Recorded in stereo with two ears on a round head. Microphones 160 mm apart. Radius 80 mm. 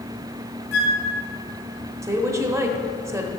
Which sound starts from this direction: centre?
A woman speaking, at 2.0 s.